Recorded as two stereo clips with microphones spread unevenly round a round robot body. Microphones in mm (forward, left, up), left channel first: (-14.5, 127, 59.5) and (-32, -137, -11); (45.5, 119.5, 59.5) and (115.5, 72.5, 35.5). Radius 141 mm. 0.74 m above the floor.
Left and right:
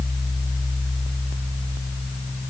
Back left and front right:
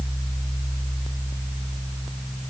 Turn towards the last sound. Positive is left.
No sound to turn to.